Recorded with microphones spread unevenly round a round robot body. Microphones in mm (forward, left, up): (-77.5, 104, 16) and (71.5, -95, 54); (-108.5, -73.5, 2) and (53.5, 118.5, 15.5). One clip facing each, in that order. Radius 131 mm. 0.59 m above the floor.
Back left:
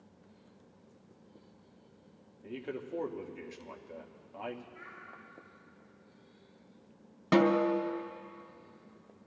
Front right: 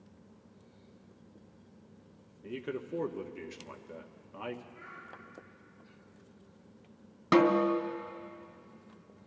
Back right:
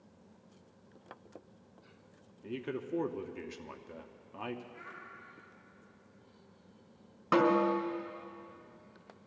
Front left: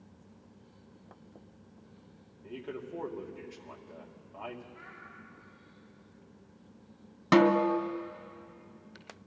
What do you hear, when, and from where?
2.4 s a man speaking: 125° right, 0.9 m
4.7 s a child speaking: 175° right, 5.5 m
7.3 s a snare drum: 20° left, 0.7 m